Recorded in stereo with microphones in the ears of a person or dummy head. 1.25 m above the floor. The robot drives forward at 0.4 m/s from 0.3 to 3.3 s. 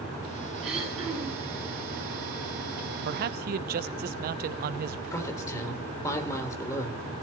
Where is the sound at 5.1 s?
15° left (ahead or behind), 3.5 m.